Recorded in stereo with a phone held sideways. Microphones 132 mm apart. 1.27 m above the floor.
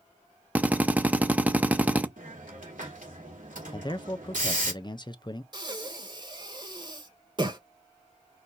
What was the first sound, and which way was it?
A drill, 10° right (ahead or behind).